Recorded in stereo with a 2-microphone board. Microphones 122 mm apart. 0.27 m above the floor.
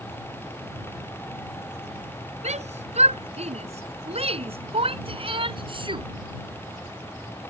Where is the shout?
70° right (ahead or behind); by 6.0 s 40° right (ahead or behind).